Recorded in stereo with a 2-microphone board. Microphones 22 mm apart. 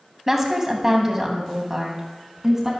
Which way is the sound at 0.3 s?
20° right (ahead or behind).